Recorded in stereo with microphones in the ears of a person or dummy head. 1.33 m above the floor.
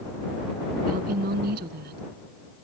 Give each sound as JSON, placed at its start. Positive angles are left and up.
{"t": 0.9, "sound": "a woman speaking", "side_deg": -45}